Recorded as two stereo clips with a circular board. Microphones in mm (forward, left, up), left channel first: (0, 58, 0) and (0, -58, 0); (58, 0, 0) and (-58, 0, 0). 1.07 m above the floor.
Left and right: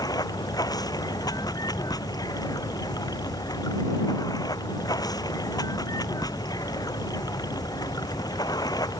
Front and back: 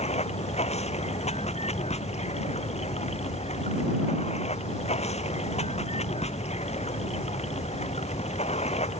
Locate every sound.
0.0 s running water: 30° left